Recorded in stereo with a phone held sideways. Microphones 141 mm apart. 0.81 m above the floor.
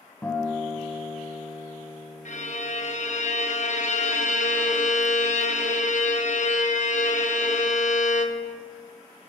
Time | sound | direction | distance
0.2 | a guitar | 10° left (ahead or behind) | 0.9 m
2.2 | a violin | 60° left (ahead or behind) | 0.6 m